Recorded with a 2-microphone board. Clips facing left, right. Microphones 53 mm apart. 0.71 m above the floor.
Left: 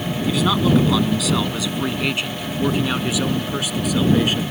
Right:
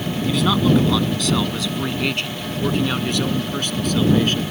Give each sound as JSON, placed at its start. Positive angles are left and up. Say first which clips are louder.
{"t": 0.3, "sound": "a man speaking", "louder": "even", "side_deg": 5}